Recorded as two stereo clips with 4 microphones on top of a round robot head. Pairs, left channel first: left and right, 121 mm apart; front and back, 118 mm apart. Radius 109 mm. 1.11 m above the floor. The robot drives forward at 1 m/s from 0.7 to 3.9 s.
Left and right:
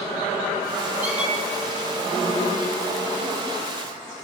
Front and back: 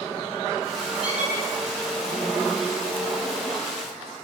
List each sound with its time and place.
1.0 s a squeak: 160° right, 1.3 m; by 1.4 s 165° right, 1.5 m